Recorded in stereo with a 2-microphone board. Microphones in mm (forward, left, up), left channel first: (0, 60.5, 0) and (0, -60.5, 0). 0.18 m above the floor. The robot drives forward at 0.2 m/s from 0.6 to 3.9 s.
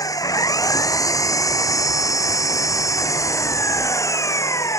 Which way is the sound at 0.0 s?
30° left (ahead or behind).